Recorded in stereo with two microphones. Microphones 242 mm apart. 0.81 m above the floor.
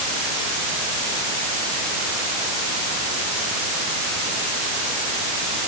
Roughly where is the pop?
No pop in this recording.